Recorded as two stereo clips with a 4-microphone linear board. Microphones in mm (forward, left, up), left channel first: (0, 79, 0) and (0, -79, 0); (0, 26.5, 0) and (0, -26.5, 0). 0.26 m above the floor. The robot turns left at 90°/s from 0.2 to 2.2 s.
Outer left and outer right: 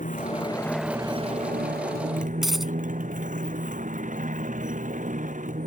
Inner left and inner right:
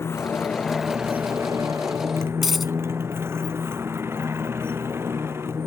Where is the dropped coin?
Centre (ahead or behind).